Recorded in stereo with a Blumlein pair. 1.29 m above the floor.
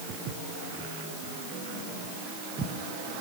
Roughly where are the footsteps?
Ahead right.